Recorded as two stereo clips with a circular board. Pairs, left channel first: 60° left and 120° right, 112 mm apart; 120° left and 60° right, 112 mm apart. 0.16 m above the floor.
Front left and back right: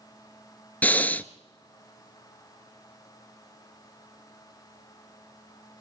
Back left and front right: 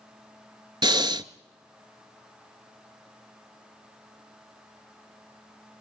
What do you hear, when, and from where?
0.8 s breathing: 15° right, 0.5 m